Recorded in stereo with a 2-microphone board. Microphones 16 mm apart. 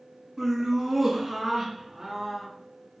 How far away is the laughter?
About 1.7 m.